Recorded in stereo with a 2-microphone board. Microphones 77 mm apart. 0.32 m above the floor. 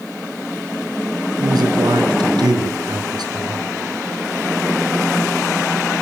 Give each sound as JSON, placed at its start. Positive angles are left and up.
{"t": 1.4, "sound": "a man speaking", "side_deg": -70, "distance_m": 4.0}